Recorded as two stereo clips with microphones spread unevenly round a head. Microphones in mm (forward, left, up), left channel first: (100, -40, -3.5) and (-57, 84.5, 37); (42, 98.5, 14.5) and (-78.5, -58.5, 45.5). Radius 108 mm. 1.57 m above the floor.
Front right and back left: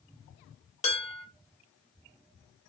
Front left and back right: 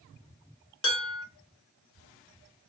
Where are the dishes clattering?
25° left, 1.3 m.